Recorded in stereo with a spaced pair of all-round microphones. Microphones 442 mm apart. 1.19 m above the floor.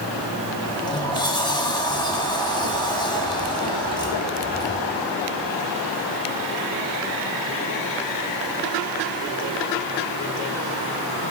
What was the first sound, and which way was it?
A sliding door, 10° left (ahead or behind).